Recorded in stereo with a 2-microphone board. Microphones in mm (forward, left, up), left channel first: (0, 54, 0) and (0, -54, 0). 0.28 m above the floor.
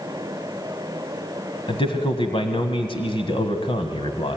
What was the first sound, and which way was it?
A man speaking, 50° left (ahead or behind).